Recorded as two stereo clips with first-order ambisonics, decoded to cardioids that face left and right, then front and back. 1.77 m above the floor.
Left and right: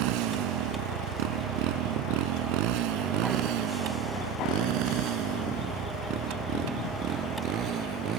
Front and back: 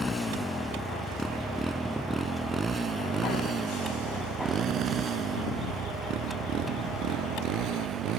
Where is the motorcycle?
75° right; by 8.2 s 140° right.